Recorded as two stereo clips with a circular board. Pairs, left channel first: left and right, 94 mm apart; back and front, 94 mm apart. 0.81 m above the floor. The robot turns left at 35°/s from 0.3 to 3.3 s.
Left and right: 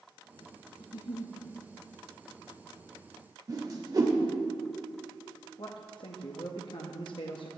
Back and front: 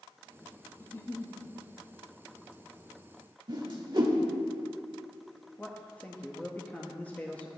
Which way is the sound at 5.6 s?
105° left.